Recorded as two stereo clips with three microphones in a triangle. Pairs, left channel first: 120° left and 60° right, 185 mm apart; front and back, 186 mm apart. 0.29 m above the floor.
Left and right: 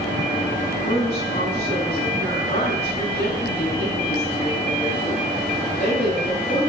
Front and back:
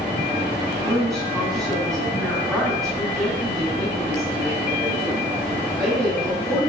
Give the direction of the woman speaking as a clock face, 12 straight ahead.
9 o'clock.